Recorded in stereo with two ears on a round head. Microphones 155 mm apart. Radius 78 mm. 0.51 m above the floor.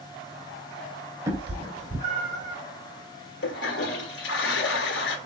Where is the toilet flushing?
70° left (ahead or behind), 1.2 m.